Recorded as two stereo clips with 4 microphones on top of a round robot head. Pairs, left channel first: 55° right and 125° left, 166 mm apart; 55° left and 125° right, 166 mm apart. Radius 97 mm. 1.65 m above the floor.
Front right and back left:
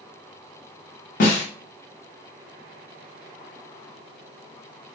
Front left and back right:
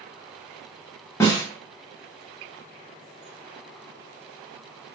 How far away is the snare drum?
About 0.7 m.